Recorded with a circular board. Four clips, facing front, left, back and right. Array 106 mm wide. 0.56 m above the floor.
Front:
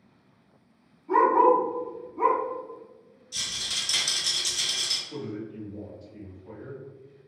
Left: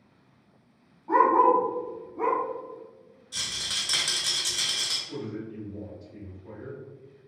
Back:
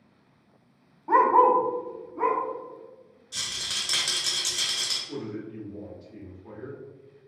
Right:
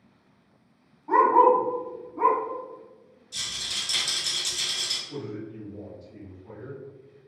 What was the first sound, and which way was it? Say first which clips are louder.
A dog barking: right 2 dB, back 1 dB; 175° right.